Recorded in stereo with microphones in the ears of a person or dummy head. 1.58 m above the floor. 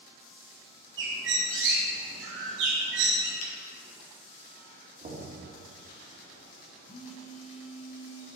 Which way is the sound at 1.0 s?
70° right (ahead or behind).